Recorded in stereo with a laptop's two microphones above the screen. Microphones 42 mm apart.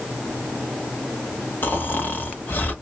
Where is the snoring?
50° left (ahead or behind), 1.0 m.